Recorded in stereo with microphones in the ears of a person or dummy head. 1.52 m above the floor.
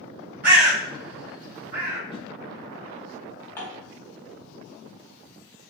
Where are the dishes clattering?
15° left (ahead or behind), 1.2 m.